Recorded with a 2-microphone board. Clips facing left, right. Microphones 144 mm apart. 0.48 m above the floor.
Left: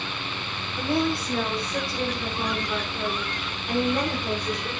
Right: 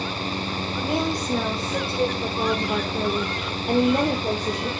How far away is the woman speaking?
About 2.5 m.